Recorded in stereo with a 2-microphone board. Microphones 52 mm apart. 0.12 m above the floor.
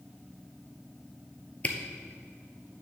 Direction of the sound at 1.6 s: 30° left (ahead or behind).